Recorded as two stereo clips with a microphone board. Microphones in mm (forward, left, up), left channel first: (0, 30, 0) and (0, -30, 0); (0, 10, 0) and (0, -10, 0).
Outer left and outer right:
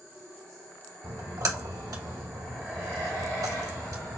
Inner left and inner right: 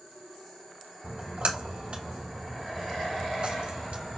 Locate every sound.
1.0 s a splash: 80° right, 1.5 m